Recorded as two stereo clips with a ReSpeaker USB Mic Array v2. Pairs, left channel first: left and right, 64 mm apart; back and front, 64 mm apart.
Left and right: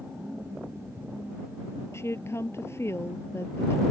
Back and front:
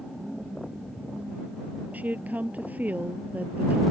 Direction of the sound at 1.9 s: 60° left.